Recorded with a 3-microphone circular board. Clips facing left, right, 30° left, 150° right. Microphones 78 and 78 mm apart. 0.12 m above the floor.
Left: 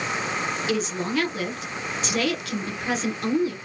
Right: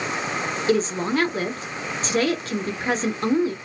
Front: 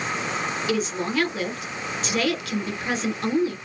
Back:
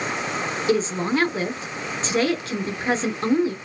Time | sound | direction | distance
0.7 | a woman speaking | 115° right | 2.0 m